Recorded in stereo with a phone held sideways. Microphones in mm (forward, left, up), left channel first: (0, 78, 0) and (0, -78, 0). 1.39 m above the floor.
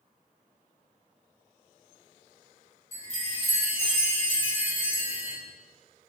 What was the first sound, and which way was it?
A chime, 35° left (ahead or behind).